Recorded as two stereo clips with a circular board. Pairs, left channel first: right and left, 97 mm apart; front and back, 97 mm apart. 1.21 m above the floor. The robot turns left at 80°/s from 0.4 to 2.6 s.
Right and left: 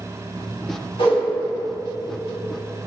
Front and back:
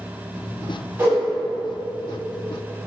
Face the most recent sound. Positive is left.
turn(degrees=120)